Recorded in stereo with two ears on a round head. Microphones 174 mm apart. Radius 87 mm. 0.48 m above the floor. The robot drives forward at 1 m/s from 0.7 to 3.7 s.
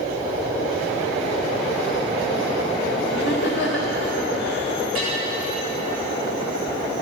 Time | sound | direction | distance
3.1 | laughter | 65° left (ahead or behind) | 1.8 m
5.0 | a bell | 10° right (ahead or behind) | 6.5 m